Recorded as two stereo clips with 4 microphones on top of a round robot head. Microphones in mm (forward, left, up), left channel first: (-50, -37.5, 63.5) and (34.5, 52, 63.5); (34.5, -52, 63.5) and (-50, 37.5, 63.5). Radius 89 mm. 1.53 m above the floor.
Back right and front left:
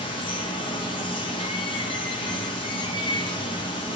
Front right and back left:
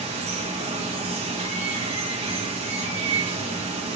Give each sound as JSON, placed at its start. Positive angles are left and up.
{"t": 0.0, "sound": "running water", "azimuth_deg": 175, "distance_m": 0.7}